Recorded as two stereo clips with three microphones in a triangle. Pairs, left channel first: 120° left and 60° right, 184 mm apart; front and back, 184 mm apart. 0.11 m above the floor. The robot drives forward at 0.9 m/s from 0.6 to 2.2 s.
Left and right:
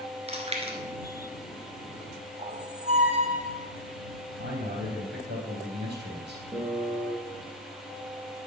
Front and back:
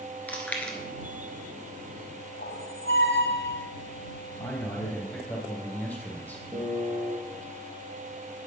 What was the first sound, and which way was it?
Chewing, 75° right.